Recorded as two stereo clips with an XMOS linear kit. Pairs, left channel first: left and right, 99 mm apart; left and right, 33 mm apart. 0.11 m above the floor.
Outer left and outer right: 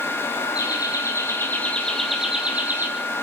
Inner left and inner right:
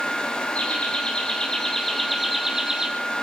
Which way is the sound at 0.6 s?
45° left (ahead or behind).